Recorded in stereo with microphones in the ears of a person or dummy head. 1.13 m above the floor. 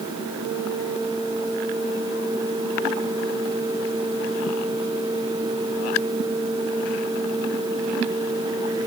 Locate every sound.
Only background noise.